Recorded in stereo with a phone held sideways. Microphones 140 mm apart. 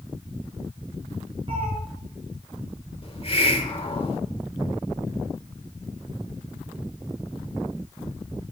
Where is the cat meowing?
40° right (ahead or behind), 4 m.